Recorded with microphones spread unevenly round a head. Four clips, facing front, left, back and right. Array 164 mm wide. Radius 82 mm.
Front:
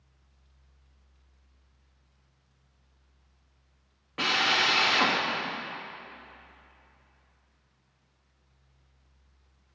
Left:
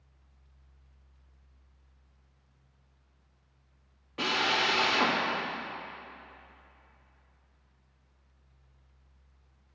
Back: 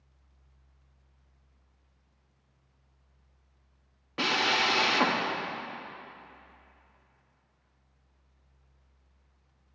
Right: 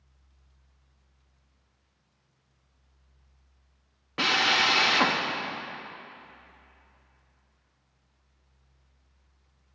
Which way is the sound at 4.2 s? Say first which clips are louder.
Right 3 dB, even; 90° right.